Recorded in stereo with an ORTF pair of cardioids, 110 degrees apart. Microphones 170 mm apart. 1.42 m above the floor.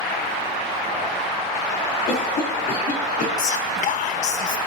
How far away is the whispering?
About 1.3 m.